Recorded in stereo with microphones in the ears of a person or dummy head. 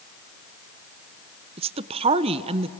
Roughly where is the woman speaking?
Right.